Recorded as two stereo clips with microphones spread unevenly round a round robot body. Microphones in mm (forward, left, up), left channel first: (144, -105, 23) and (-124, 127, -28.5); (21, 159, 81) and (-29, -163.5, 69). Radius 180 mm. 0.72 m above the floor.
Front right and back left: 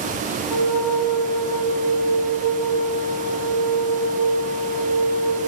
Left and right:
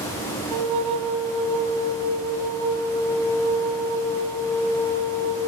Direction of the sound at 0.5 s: 65° right.